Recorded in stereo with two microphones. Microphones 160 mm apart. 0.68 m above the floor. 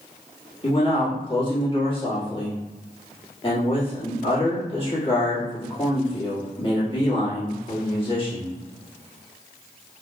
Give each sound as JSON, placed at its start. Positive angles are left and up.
{"t": 0.6, "sound": "a man speaking", "side_deg": 35, "distance_m": 1.6}